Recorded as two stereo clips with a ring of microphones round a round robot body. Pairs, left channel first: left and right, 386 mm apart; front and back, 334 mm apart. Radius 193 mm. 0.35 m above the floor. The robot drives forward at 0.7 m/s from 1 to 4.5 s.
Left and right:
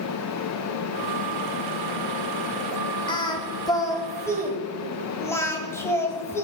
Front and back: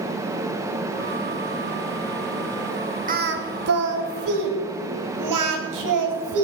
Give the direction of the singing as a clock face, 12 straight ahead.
7 o'clock.